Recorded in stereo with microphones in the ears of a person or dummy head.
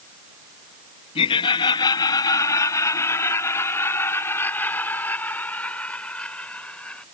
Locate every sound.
1.1 s laughter: 30° left (ahead or behind); by 7.0 s 10° left (ahead or behind)